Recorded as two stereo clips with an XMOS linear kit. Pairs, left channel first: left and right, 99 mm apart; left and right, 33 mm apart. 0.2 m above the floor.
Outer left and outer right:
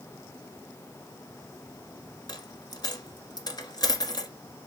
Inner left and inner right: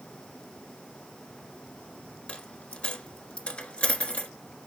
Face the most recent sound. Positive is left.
turn(degrees=40)  # may be behind; listen again after turning